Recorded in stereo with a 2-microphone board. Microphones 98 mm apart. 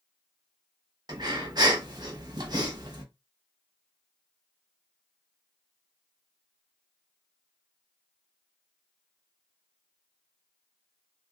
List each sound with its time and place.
1.1 s breathing: 45° right (ahead or behind), 0.8 m